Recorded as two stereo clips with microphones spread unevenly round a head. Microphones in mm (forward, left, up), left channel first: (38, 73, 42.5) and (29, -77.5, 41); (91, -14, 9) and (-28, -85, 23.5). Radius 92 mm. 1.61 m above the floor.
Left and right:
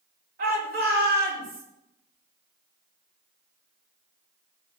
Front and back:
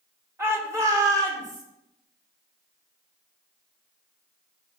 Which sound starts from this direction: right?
A shout, at 0.4 s.